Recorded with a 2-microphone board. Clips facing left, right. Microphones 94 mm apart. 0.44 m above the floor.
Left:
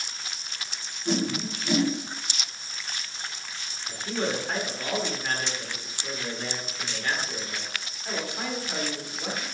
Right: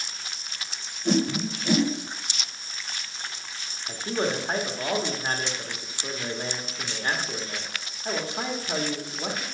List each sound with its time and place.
1.1 s a whoosh: 45° right (ahead or behind), 1.3 m
3.9 s a man speaking: 30° right (ahead or behind), 1.0 m